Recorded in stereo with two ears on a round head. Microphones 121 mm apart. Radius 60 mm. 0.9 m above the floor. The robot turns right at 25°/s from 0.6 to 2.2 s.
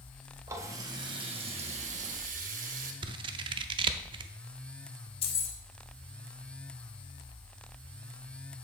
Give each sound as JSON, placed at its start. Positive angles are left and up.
{"t": 0.5, "sound": "a running tap", "azimuth_deg": -160, "distance_m": 1.1}
{"t": 3.0, "sound": "scissors", "side_deg": -35, "distance_m": 0.5}
{"t": 5.2, "sound": "keys jangling", "side_deg": 40, "distance_m": 1.1}